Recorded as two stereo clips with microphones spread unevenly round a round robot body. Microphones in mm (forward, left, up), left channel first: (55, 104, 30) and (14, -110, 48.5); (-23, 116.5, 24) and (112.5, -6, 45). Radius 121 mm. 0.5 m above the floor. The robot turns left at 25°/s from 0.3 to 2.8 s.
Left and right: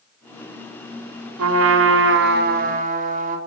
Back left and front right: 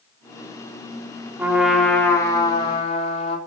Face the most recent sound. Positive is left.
turn(degrees=-160)